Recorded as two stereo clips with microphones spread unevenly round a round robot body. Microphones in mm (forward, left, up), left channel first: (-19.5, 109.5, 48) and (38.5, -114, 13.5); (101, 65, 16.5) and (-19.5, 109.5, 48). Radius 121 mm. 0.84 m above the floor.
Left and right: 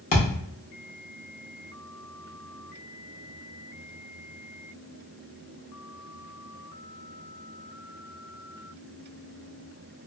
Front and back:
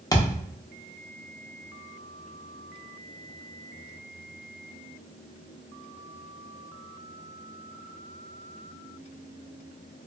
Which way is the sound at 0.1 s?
50° left.